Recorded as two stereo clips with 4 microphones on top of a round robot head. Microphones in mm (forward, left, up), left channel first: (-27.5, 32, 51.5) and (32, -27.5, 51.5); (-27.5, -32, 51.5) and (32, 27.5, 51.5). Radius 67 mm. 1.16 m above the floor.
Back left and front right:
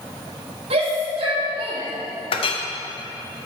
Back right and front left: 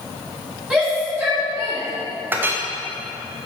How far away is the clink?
About 0.9 m.